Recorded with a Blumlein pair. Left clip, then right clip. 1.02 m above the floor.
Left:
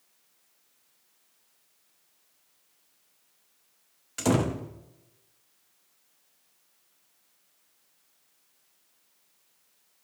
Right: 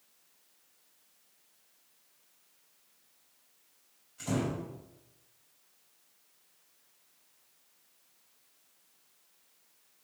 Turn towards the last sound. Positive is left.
turn(degrees=45)